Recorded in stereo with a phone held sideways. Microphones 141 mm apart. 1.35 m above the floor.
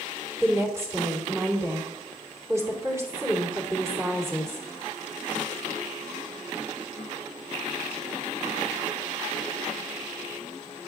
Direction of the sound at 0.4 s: 20° right (ahead or behind).